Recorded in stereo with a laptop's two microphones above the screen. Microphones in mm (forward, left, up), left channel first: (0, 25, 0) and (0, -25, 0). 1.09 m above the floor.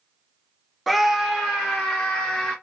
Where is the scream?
Centre (ahead or behind), 0.7 m; by 2.5 s 10° right (ahead or behind), 2.5 m.